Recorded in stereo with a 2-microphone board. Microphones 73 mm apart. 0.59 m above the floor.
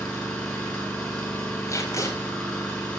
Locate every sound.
0.0 s an engine running: 15° left (ahead or behind), 7.5 m
1.7 s tape being pulled: 45° left (ahead or behind), 4.5 m